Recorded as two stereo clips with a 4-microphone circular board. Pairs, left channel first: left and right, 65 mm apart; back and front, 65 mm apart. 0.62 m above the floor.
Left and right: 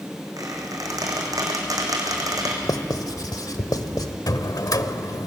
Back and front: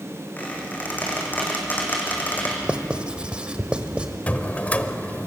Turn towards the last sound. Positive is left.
turn(degrees=115)